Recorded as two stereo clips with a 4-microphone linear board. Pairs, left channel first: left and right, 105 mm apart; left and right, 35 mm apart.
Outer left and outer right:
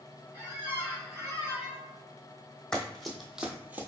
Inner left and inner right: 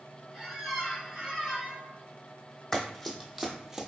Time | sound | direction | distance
0.3 | a squeak | 15° right (ahead or behind) | 2.0 m
2.7 | running footsteps | 5° left (ahead or behind) | 1.0 m